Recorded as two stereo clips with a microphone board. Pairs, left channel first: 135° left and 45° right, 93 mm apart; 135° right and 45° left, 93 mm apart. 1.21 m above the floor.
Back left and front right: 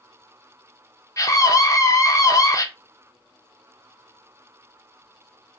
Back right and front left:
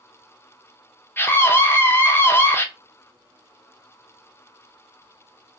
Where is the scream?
170° left, 0.8 m.